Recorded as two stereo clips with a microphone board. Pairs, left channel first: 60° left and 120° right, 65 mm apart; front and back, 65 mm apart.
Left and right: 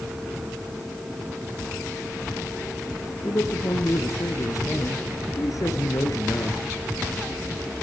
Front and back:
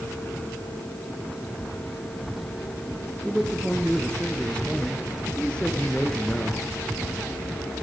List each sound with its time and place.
3.2 s a man speaking: 75° left, 3 m